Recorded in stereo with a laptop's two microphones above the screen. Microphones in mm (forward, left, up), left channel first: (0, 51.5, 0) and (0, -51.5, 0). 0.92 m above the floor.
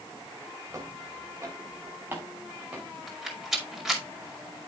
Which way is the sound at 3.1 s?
5° right (ahead or behind).